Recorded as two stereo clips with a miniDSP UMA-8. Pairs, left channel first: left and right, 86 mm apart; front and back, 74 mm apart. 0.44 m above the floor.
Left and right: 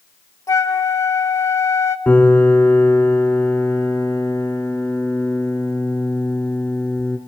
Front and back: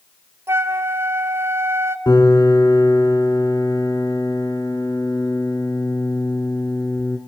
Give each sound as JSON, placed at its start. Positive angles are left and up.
{"t": 0.5, "sound": "a flute", "azimuth_deg": 135, "distance_m": 0.8}
{"t": 2.1, "sound": "a piano", "azimuth_deg": 20, "distance_m": 1.9}